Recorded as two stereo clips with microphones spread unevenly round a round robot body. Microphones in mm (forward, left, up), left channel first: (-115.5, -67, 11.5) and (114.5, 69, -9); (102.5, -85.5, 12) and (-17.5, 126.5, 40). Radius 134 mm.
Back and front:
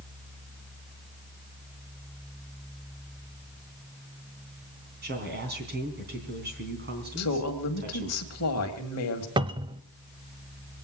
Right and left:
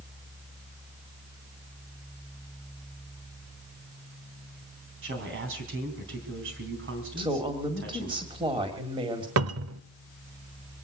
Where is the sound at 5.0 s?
80° left, 3.5 m.